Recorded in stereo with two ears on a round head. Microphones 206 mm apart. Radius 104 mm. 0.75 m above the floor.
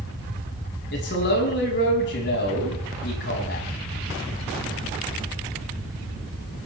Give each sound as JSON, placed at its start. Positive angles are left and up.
{"t": 0.9, "sound": "a man speaking", "side_deg": 50, "distance_m": 6.5}